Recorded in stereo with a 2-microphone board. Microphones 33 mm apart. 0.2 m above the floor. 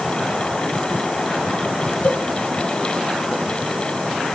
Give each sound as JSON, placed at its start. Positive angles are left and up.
{"t": 2.0, "sound": "a cowbell", "side_deg": 55, "distance_m": 3.0}